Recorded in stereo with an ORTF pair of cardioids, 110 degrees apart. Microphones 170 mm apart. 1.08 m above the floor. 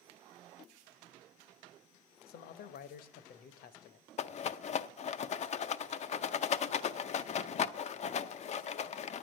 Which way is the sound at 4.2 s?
45° left.